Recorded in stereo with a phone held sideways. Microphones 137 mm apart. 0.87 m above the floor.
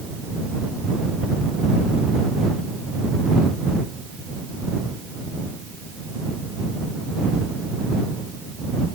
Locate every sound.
Only background noise.